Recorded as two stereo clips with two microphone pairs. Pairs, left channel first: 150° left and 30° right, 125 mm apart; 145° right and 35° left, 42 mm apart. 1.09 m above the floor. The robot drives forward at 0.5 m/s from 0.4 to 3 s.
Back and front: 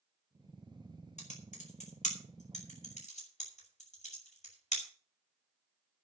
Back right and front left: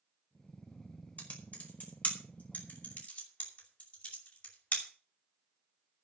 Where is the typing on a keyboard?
160° left, 5 m; by 4.9 s 165° left, 5.5 m.